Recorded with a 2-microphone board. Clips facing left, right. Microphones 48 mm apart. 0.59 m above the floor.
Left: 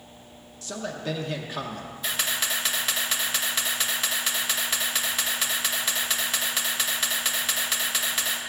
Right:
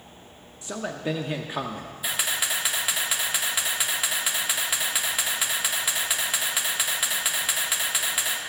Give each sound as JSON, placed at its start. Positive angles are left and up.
{"t": 0.6, "sound": "a man speaking", "side_deg": -20, "distance_m": 0.7}
{"t": 2.0, "sound": "a camera shutter", "side_deg": -10, "distance_m": 1.2}